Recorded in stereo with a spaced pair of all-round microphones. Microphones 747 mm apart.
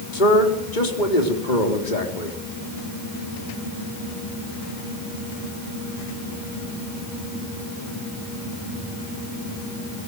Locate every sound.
0.1 s a man speaking: 80° left, 4 m